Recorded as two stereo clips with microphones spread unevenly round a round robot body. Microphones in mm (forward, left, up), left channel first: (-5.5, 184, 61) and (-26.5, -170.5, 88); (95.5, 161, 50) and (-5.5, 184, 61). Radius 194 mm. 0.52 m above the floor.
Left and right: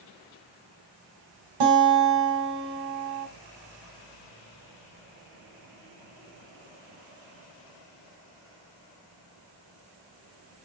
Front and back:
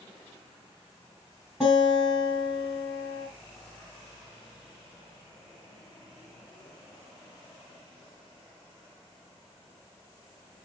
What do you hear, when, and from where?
1.6 s a guitar: 105° right, 3 m